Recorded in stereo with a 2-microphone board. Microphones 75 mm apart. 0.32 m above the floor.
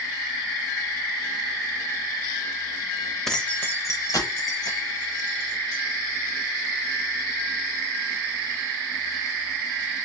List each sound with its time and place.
3.3 s keys jangling: 5° left (ahead or behind), 0.7 m; by 5.8 s 65° left (ahead or behind), 2 m